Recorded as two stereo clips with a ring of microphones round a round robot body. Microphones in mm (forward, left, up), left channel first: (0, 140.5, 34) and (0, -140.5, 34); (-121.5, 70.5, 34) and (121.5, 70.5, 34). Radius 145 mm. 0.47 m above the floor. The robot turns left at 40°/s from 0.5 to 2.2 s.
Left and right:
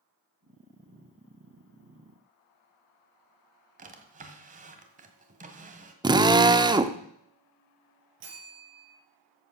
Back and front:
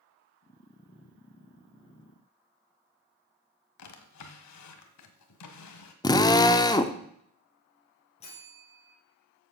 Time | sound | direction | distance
3.8 | a drawer | 155° right | 1.5 m
6.0 | a drill | 135° right | 0.8 m
8.2 | a bell | 110° right | 5 m